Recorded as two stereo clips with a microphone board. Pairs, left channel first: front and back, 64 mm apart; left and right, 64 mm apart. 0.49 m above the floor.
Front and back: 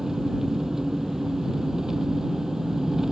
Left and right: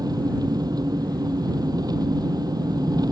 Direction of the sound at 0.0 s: 95° right.